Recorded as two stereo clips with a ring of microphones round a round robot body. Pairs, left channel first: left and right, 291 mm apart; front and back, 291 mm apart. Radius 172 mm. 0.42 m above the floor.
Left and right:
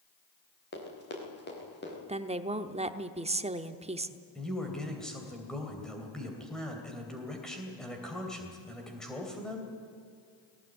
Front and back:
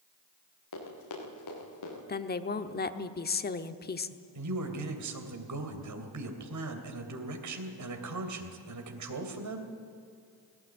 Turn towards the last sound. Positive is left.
turn(degrees=180)